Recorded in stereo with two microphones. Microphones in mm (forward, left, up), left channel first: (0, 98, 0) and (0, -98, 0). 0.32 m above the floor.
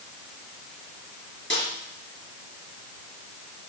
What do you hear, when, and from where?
1.5 s a snare drum: 75° left (ahead or behind), 5 m